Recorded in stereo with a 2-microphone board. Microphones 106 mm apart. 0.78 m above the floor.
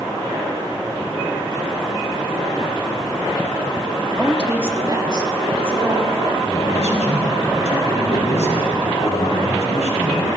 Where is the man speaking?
80° left, 4 m.